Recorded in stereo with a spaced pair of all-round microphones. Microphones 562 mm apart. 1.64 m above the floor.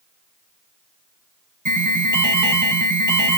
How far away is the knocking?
No knocking in this recording.